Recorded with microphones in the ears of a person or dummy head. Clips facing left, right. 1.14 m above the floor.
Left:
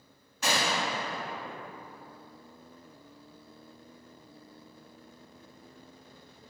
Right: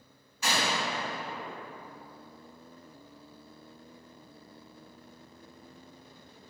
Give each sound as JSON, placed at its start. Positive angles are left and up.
{"t": 0.4, "sound": "a gunshot", "side_deg": 50, "distance_m": 1.4}